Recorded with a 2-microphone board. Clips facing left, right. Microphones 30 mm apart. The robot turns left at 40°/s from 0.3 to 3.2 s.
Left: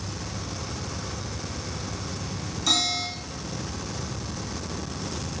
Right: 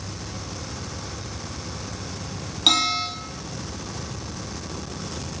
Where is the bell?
65° right (ahead or behind), 1.3 m; by 3.1 s 45° right (ahead or behind), 1.3 m.